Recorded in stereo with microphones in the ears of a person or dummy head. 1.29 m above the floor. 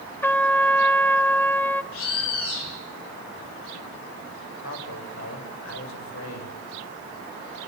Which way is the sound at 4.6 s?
75° left (ahead or behind).